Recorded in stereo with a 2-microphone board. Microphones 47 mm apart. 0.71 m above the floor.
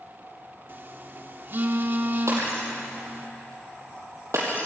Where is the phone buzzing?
45° right (ahead or behind), 1.4 m.